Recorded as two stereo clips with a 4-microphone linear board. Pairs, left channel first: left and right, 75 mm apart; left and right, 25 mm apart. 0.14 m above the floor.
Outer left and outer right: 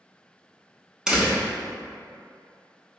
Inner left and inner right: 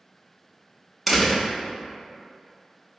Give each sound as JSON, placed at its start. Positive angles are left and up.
{"t": 1.1, "sound": "a door slam", "side_deg": -10, "distance_m": 0.8}